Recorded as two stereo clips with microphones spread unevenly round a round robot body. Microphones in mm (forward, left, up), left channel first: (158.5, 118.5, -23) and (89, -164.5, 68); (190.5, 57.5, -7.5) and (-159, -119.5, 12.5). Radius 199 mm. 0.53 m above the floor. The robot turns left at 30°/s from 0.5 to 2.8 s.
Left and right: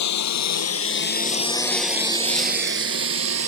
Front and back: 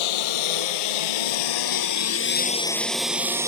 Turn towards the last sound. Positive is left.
turn(degrees=-70)